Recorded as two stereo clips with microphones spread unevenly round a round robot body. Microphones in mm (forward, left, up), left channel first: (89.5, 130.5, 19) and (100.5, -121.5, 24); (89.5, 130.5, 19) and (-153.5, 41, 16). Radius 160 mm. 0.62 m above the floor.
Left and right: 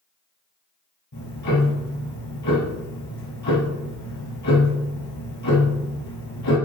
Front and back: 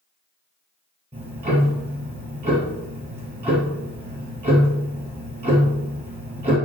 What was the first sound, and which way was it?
Ticking, 135° left.